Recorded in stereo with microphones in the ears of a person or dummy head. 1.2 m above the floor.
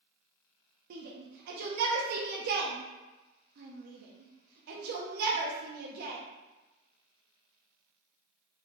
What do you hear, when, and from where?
0.9 s a shout: 60° right (ahead or behind), 0.5 m